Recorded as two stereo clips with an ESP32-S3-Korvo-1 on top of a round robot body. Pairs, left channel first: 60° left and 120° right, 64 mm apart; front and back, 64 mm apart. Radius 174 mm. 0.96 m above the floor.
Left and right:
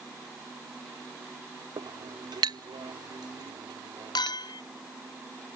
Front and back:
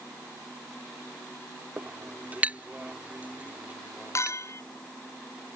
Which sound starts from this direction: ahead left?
A clink, at 4.2 s.